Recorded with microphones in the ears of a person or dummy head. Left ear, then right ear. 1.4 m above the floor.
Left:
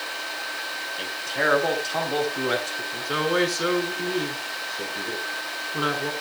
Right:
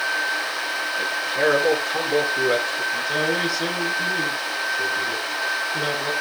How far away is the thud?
No thud in this recording.